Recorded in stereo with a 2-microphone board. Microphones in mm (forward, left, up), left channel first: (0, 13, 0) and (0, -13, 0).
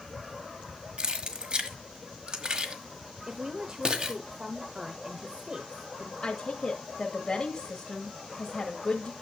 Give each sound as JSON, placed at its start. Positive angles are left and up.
{"t": 1.0, "sound": "keys jangling", "side_deg": -40, "distance_m": 1.3}
{"t": 3.3, "sound": "a woman speaking", "side_deg": -25, "distance_m": 1.0}
{"t": 6.2, "sound": "a woman speaking", "side_deg": 35, "distance_m": 1.4}